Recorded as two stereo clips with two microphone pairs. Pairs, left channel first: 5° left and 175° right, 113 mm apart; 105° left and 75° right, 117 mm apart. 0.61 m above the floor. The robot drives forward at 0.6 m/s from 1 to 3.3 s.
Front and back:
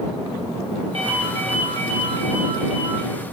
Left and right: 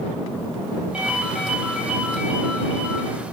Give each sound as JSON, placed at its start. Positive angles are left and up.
{"t": 0.9, "sound": "a ringtone", "azimuth_deg": -155, "distance_m": 3.0}